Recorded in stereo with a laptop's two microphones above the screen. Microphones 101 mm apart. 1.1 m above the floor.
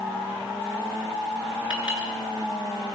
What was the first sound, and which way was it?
A clink, 55° left (ahead or behind).